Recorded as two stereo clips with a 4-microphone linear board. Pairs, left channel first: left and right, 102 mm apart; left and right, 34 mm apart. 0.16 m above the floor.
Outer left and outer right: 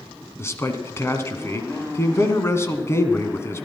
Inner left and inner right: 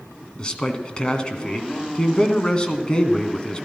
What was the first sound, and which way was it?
A man speaking, 25° left (ahead or behind).